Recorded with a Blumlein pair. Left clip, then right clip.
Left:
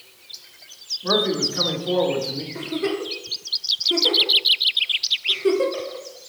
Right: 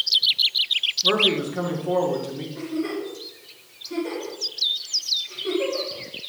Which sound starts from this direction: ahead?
A man speaking, at 1.0 s.